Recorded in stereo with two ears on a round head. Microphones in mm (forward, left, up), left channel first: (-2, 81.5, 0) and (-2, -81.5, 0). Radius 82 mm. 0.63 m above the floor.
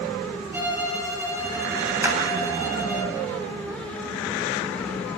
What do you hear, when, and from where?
0.5 s a violin: 10° right (ahead or behind), 5.5 m
2.0 s a clap: 15° right (ahead or behind), 3.5 m